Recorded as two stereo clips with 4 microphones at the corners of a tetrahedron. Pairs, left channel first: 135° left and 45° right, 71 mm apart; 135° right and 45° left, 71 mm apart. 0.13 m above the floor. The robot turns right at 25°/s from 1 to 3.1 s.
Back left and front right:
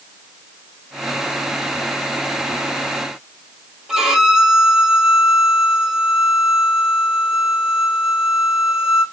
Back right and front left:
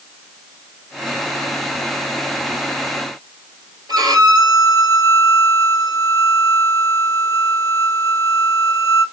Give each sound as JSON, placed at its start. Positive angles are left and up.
{"t": 3.9, "sound": "a violin", "azimuth_deg": 40, "distance_m": 1.6}